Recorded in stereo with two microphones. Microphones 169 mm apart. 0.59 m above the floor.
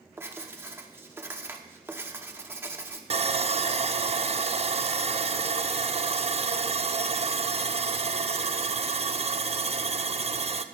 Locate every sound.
0.2 s writing: 15° right (ahead or behind), 1.0 m
3.1 s sawing: 35° right (ahead or behind), 0.5 m